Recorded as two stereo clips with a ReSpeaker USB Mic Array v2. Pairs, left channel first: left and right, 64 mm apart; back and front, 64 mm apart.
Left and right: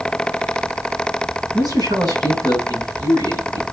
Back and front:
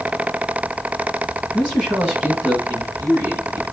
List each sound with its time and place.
1.5 s a man speaking: 75° right, 6 m; by 3.6 s 55° right, 5 m